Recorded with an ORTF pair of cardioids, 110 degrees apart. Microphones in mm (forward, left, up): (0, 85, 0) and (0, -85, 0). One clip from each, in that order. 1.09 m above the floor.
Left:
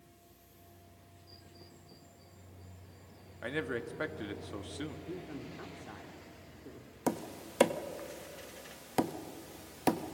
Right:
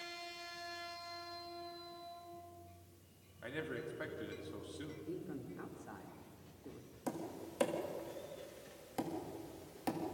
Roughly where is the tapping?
Ahead left.